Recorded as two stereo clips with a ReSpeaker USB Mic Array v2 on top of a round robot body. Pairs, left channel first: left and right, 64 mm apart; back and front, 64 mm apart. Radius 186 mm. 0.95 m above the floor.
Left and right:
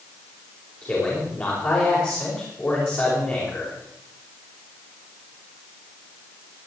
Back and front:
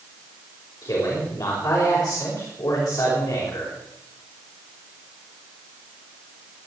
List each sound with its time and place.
0.8 s a man speaking: 145° left, 5.5 m